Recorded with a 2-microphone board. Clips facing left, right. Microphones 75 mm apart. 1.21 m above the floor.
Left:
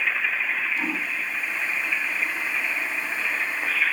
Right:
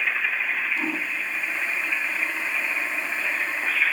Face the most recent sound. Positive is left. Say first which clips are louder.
# even
turn(degrees=-35)  # may be behind; listen again after turning